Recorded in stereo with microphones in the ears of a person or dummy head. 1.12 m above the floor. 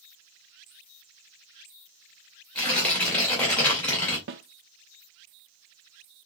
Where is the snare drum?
55° right (ahead or behind), 0.5 m.